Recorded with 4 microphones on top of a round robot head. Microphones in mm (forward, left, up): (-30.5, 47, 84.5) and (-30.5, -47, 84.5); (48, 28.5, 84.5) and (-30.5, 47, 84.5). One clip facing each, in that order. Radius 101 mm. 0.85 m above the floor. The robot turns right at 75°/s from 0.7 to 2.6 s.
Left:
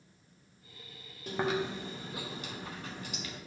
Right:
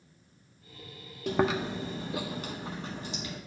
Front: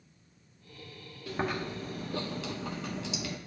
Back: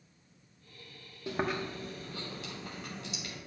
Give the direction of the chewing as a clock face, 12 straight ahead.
4 o'clock.